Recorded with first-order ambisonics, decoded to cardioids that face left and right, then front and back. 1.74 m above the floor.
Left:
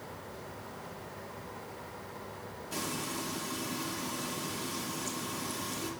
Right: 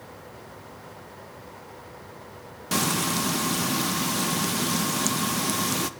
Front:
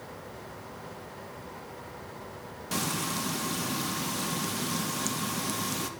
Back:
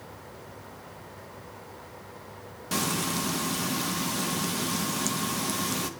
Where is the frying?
100° right, 0.6 m.